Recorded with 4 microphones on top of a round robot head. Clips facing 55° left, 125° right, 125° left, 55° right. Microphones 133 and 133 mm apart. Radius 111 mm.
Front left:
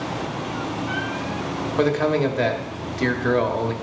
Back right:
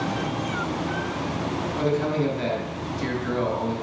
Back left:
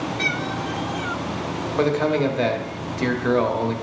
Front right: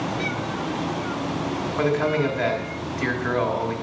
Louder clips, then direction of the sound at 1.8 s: Front left 5 dB, back left 2 dB; 65° left.